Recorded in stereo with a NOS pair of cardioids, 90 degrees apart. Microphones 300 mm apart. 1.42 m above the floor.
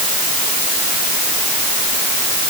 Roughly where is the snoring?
I don't hear snoring.